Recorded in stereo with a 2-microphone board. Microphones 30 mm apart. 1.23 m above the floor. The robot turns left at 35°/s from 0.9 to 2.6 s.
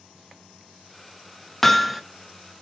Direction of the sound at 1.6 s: 5° left (ahead or behind).